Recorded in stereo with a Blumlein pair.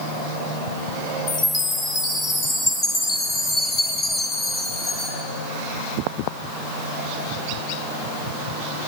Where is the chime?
25° left, 4 m.